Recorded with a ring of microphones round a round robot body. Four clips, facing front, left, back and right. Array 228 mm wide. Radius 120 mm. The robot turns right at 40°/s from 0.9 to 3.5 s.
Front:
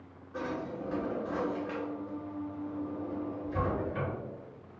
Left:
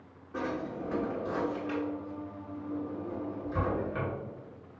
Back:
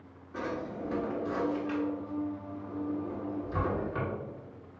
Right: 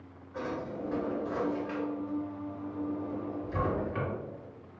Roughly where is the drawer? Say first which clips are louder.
Left 1 dB, even; left.